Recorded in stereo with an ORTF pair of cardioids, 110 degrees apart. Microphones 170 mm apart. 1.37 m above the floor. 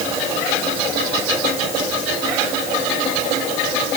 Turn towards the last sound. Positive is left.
No sound to turn to.